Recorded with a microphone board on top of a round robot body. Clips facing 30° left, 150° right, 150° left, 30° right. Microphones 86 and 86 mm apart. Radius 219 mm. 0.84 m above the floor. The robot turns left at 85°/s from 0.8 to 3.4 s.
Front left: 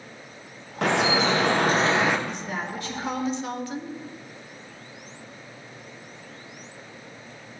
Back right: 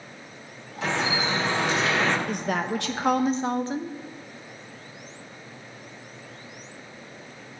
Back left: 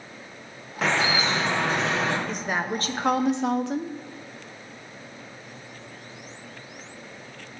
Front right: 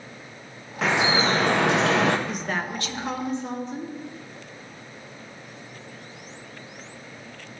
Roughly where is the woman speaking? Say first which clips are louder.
Back right 5 dB, back left 1 dB; right.